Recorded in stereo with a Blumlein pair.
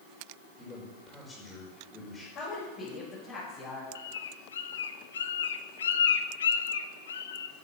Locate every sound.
0.6 s a man speaking: 10° left, 5 m
2.4 s a woman speaking: 30° left, 7 m
4.0 s a bird: 65° left, 0.9 m